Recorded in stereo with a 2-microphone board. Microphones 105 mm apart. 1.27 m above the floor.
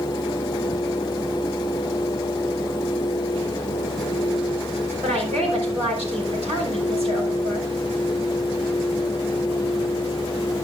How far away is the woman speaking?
About 5 m.